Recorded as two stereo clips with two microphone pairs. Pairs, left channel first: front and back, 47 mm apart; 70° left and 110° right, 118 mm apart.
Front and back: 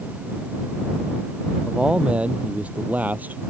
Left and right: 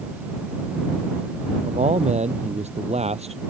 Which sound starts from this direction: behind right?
A man speaking, at 1.6 s.